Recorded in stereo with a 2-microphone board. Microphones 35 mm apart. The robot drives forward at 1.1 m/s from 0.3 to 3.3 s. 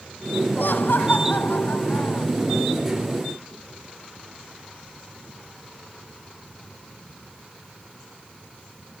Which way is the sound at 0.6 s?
75° left (ahead or behind).